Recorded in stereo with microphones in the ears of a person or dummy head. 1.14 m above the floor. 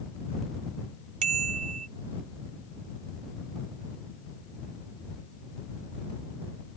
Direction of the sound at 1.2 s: 45° right (ahead or behind).